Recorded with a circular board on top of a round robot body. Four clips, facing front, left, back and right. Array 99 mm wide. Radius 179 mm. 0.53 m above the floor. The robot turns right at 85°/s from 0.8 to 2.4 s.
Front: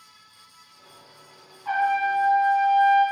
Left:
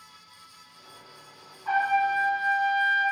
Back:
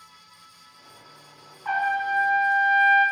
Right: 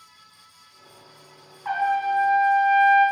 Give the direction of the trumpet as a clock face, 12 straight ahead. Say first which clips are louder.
Right 1 dB, front 2 dB; 4 o'clock.